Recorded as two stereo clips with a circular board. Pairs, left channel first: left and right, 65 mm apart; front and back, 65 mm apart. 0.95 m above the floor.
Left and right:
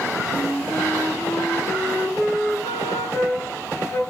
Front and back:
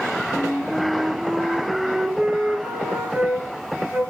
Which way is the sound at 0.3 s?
120° left.